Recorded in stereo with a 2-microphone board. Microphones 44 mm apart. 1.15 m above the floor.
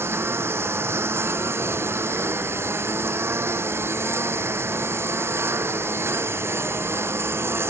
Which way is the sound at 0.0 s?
60° right (ahead or behind).